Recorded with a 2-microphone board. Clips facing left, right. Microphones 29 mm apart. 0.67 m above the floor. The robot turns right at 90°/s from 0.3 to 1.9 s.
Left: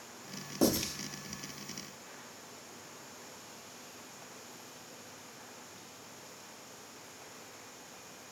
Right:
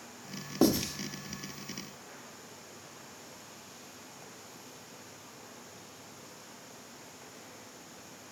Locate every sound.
0.6 s writing: 25° right (ahead or behind), 0.8 m; by 0.8 s 20° right (ahead or behind), 0.8 m